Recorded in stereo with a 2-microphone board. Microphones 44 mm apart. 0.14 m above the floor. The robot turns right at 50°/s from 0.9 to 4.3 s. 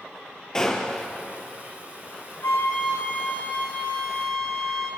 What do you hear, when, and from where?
0.5 s a gunshot: 15° left (ahead or behind), 1.6 m; by 1.1 s 5° left (ahead or behind), 1.6 m
2.4 s a flute: 80° left, 4 m; by 4.9 s 175° left, 4 m